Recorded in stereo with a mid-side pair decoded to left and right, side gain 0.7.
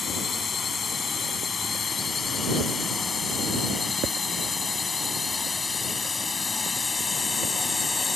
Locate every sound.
0.0 s a drone: 30° left; by 8.2 s 20° left